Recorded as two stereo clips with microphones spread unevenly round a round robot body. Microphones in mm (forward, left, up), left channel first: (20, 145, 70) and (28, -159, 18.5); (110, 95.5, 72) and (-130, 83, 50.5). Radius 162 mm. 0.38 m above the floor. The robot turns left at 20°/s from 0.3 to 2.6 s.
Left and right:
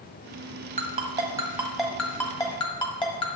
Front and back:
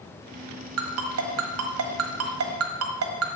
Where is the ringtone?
155° right, 1.4 m; by 3.3 s 170° left, 1.4 m.